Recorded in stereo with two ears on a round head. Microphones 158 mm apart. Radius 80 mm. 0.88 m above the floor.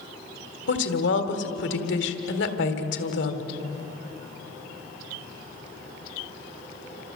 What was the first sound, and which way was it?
A woman speaking, 65° left (ahead or behind).